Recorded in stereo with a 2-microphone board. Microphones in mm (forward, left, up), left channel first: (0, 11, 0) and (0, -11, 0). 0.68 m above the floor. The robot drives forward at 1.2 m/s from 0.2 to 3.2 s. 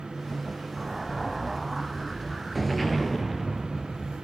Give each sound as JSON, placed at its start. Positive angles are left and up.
{"t": 0.8, "sound": "an explosion", "side_deg": -5, "distance_m": 0.7}